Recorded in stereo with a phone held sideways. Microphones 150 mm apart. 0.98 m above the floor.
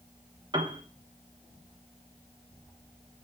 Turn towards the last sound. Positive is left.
turn(degrees=-30)  # may be behind; listen again after turning